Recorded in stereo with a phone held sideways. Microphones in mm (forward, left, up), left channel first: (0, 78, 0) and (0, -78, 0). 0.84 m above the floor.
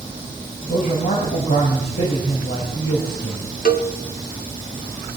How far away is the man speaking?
About 4 m.